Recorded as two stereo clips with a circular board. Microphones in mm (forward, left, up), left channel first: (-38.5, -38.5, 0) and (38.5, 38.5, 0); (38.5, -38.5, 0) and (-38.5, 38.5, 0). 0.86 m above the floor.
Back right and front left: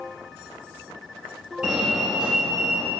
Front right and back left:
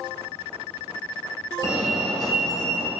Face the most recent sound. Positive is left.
turn(degrees=-25)